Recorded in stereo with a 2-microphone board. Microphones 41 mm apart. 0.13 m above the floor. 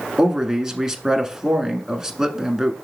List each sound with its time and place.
0.2 s a man speaking: 15° right (ahead or behind), 1.2 m